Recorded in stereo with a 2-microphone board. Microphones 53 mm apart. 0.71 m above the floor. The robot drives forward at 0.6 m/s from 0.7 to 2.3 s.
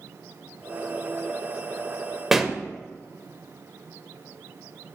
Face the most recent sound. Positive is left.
turn(degrees=-5)  # may be behind; listen again after turning